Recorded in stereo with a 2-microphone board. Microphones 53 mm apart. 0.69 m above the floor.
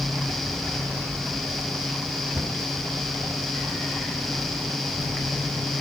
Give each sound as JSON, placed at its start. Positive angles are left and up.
{"t": 2.4, "sound": "a cupboard door", "side_deg": -10, "distance_m": 1.5}